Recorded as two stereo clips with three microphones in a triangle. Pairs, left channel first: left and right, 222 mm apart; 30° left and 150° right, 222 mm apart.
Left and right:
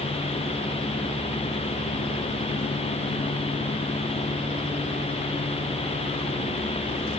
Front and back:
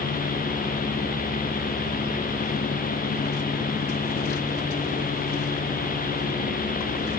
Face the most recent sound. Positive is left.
No sound to turn to.